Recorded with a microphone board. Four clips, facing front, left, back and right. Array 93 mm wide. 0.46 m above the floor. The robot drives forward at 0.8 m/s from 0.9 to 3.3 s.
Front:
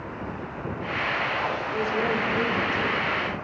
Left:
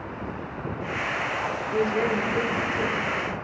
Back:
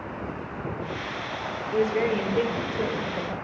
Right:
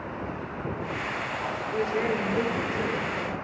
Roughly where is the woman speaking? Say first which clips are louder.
Left 3 dB, back 5 dB; behind left.